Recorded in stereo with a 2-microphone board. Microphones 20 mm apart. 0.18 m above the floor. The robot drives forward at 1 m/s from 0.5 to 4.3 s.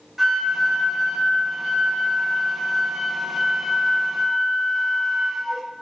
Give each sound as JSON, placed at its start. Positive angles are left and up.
{"t": 0.2, "sound": "a flute", "side_deg": -5, "distance_m": 3.5}